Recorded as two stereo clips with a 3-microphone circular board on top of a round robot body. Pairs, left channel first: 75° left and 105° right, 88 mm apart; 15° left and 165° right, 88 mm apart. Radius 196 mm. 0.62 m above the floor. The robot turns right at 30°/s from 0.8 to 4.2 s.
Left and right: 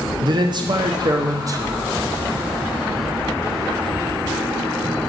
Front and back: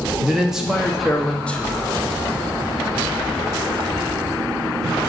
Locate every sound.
0.2 s a man speaking: 80° right, 1.3 m; by 1.8 s 50° right, 1.3 m